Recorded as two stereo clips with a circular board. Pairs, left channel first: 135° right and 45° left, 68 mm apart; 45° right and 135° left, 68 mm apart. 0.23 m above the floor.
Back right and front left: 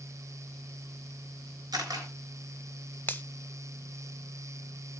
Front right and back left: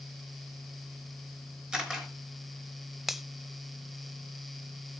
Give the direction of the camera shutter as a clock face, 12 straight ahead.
10 o'clock.